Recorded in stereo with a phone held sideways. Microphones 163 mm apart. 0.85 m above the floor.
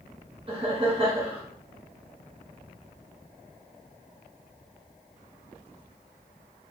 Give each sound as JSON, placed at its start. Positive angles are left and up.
{"t": 0.5, "sound": "laughter", "side_deg": -35, "distance_m": 0.9}